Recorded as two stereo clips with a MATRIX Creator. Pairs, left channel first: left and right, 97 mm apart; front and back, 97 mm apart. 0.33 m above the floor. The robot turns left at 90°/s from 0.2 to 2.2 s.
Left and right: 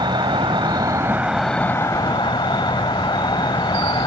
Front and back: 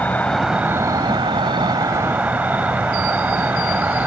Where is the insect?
70° right; by 4.1 s 110° left.